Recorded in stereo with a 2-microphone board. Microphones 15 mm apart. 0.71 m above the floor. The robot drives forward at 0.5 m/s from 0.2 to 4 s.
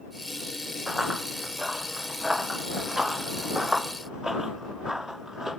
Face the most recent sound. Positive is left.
turn(degrees=-35)  # may be behind; listen again after turning